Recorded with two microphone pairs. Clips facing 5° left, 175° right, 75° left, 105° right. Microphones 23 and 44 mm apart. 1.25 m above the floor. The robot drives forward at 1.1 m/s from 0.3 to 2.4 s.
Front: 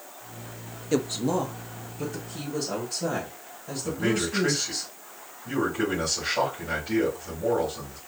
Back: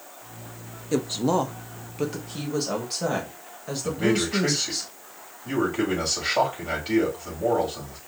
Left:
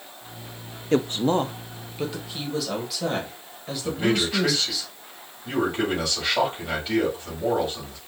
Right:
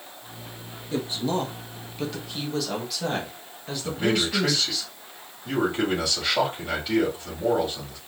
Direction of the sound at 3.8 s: 170° left.